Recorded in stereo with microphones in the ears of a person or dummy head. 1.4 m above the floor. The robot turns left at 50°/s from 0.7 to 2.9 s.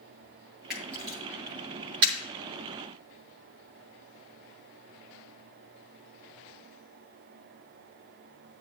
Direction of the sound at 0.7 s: 5° right (ahead or behind).